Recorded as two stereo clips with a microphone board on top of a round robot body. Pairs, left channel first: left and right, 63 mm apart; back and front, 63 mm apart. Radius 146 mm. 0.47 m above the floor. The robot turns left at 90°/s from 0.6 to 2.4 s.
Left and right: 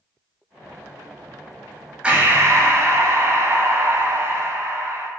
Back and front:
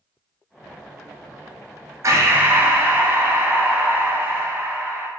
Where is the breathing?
20° right, 0.7 m; by 5.1 s 55° right, 0.7 m.